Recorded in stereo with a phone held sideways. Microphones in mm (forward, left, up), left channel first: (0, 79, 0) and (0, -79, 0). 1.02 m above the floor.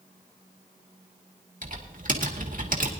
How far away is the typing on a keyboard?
About 1.9 m.